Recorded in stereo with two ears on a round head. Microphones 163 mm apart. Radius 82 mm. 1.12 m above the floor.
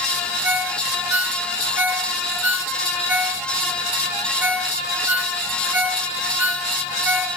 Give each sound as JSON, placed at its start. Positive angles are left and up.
{"t": 0.4, "sound": "a ringtone", "side_deg": -10, "distance_m": 1.7}